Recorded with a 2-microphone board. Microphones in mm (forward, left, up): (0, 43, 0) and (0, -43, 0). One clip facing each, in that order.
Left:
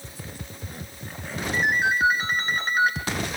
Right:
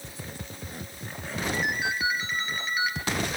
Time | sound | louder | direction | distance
1.5 | a ringtone | left 8 dB | 45° left (ahead or behind) | 3 m